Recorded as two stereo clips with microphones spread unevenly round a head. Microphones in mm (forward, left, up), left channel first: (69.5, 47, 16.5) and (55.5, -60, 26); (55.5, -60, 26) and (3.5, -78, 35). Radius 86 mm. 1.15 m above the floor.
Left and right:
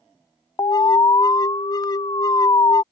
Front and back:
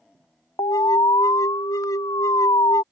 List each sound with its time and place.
0.6 s an alarm: 30° left